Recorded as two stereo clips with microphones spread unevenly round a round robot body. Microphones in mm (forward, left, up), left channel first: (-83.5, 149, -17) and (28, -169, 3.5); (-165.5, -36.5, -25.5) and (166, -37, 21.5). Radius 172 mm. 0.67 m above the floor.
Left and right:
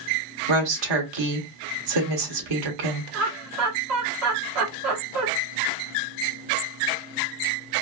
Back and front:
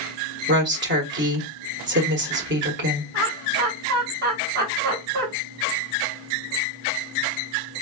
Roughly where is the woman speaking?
Ahead right.